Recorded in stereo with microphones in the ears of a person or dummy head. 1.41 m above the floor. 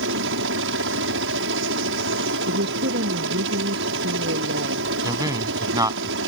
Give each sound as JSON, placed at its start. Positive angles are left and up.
{"t": 0.0, "sound": "a helicopter", "side_deg": -65}
{"t": 2.5, "sound": "a woman speaking", "side_deg": -60}
{"t": 5.0, "sound": "a man speaking", "side_deg": -20}